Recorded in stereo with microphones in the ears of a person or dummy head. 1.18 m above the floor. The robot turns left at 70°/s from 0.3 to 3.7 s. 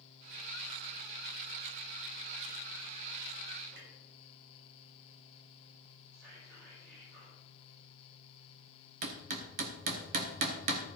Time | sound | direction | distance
3.7 | a clunk | 85° right | 3 m
6.1 | whispering | 60° right (ahead or behind) | 3.5 m
9.0 | hammering | 45° right (ahead or behind) | 0.9 m